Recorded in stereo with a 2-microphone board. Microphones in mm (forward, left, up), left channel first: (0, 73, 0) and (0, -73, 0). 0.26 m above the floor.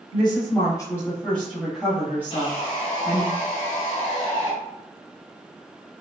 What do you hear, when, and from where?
0.1 s a woman speaking: 35° left (ahead or behind), 1.1 m; by 3.3 s 30° right (ahead or behind), 1.4 m
2.3 s sawing: 45° left (ahead or behind), 0.9 m